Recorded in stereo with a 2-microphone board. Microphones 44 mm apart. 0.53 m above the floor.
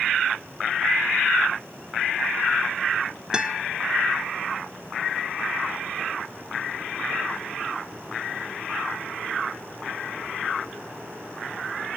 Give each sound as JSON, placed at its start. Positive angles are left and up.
{"t": 3.3, "sound": "a guitar", "side_deg": -15, "distance_m": 1.5}